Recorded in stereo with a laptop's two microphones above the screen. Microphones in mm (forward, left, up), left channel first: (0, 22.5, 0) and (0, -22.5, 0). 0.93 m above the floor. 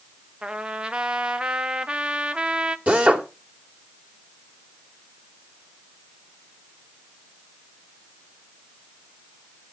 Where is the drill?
35° right (ahead or behind), 3.5 m.